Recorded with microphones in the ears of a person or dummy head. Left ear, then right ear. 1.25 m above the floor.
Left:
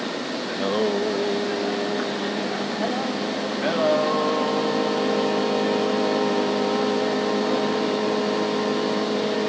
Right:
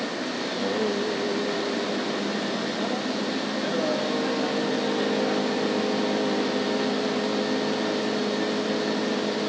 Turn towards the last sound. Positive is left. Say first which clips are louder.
# left 4 dB
turn(degrees=35)  # may be behind; listen again after turning